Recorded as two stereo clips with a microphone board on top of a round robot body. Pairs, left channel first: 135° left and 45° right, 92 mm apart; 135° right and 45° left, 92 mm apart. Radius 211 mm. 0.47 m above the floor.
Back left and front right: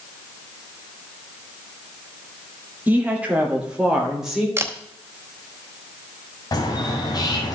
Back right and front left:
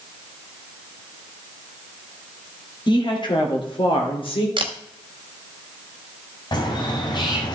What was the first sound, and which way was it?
A woman speaking, 115° right.